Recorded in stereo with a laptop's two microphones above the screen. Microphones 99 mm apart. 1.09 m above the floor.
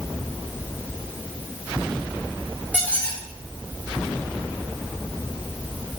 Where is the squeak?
15° right (ahead or behind), 2.5 m.